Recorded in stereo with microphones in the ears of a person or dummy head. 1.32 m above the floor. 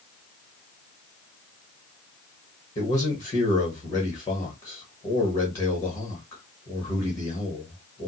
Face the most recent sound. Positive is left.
turn(degrees=20)  # may be behind; listen again after turning